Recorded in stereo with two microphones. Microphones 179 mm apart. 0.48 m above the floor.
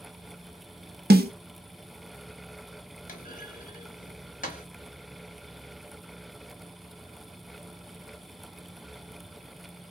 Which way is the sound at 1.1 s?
60° right (ahead or behind).